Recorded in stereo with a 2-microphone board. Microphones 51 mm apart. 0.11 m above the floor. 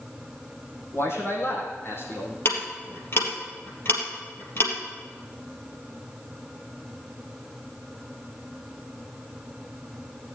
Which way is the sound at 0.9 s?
55° left (ahead or behind).